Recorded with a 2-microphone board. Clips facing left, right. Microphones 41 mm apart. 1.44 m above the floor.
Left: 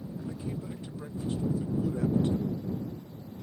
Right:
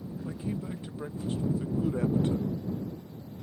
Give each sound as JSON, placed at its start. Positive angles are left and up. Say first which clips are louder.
{"t": 0.2, "sound": "a man speaking", "louder": "right 3 dB", "side_deg": -25}